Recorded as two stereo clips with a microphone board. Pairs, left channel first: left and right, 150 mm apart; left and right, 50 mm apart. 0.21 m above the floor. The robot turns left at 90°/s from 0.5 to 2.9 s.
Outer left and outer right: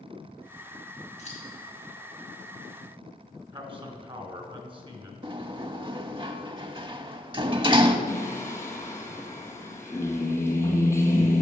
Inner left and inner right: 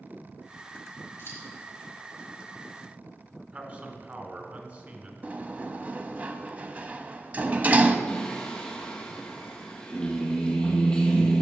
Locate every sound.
1.2 s scissors: 50° left (ahead or behind), 3 m; by 1.4 s 55° left (ahead or behind), 3 m
3.5 s a man speaking: 35° right (ahead or behind), 1.8 m
5.2 s a sliding door: 35° right (ahead or behind), 0.6 m
8.1 s singing: 20° left (ahead or behind), 1.5 m